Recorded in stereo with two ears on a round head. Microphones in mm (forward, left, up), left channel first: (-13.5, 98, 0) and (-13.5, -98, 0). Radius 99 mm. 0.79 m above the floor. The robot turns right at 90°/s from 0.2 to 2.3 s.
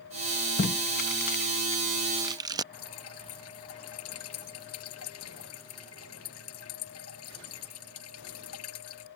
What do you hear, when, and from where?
0.6 s tape being pulled: 35° left (ahead or behind); by 2.6 s 15° right (ahead or behind)
2.7 s dripping: 80° left